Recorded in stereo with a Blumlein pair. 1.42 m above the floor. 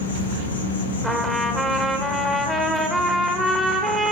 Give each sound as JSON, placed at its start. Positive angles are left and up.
{"t": 0.0, "sound": "an insect", "azimuth_deg": 70, "distance_m": 1.2}
{"t": 1.0, "sound": "a trumpet", "azimuth_deg": 5, "distance_m": 1.2}